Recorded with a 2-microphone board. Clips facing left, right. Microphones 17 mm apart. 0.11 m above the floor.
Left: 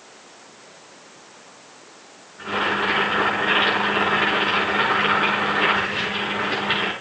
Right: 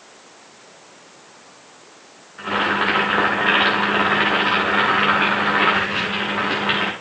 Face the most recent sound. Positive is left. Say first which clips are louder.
# right 3 dB
turn(degrees=-60)  # may be behind; listen again after turning